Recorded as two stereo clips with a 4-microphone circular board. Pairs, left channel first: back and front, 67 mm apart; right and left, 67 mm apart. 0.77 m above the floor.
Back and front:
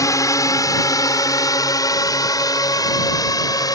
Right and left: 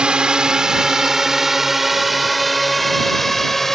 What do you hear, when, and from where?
0.0 s a drone: 165° left; by 3.8 s 175° right